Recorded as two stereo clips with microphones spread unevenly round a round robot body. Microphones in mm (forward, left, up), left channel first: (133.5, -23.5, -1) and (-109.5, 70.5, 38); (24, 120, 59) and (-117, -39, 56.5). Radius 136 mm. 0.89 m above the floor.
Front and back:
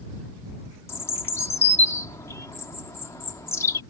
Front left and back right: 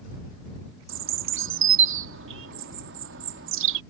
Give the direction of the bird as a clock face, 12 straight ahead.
3 o'clock.